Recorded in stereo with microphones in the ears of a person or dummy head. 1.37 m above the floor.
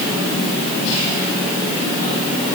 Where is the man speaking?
I don't hear a man speaking.